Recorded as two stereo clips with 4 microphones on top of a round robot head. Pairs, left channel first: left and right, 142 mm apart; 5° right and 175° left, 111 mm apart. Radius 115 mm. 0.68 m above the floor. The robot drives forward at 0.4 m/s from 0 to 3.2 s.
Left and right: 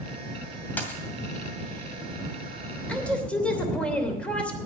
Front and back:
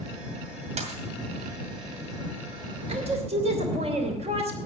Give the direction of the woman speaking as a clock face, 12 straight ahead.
6 o'clock.